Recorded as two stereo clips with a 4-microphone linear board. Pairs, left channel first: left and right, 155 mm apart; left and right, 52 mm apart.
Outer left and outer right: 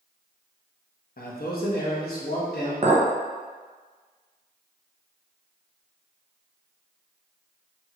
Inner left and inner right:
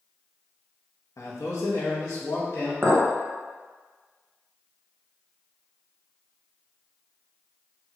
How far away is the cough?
No cough in this recording.